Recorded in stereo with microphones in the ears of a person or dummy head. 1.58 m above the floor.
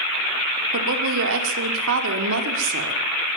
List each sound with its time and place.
0.7 s a woman speaking: 70° right (ahead or behind), 5 m